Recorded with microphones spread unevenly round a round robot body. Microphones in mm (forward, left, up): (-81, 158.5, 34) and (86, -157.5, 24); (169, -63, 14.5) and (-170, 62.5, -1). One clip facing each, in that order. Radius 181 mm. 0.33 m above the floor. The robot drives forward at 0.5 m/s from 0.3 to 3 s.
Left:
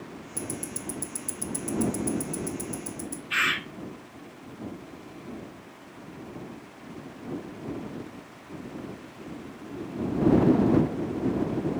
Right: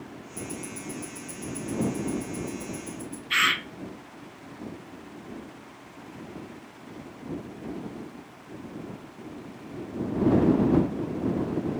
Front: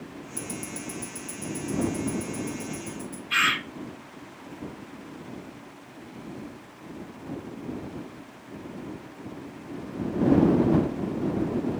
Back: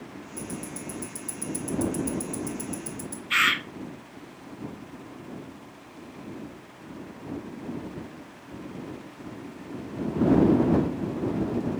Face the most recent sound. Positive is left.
turn(degrees=-130)